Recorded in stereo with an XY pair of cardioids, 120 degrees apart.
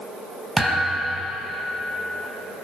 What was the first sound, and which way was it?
A thud, 10° right.